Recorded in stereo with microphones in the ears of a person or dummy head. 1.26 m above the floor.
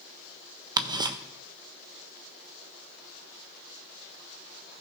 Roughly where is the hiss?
I don't hear a hiss.